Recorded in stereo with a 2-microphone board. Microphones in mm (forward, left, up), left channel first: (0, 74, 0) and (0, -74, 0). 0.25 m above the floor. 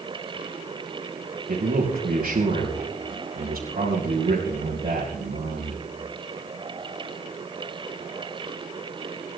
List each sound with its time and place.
1.5 s a man speaking: 75° right (ahead or behind), 4.5 m